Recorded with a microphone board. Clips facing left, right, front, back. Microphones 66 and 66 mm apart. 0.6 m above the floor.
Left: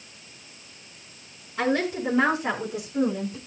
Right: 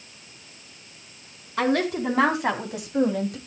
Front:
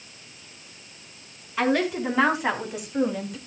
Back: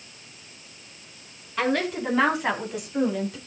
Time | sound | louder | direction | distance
1.6 | a woman speaking | right 2 dB, front 2 dB | 85° right | 5 m